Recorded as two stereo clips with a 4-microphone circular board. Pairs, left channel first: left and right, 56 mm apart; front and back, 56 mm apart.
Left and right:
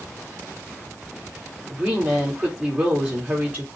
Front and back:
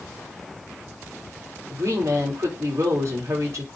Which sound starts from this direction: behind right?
A woman speaking, at 1.7 s.